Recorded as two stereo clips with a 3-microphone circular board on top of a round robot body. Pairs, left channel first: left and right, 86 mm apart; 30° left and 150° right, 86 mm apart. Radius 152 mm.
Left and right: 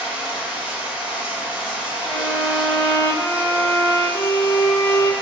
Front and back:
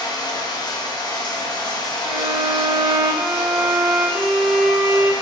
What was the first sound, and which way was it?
Running water, 10° right.